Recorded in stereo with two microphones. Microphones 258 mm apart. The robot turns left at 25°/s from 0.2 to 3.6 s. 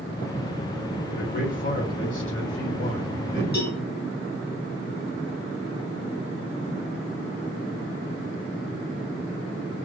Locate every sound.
1.1 s a man speaking: 120° left, 2 m; by 3.4 s 65° left, 2 m
3.5 s a cowbell: 40° left (ahead or behind), 1.5 m; by 3.8 s 35° left (ahead or behind), 1.5 m